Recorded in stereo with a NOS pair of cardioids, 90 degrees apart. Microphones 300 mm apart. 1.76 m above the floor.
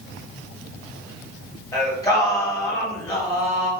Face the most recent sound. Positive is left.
turn(degrees=10)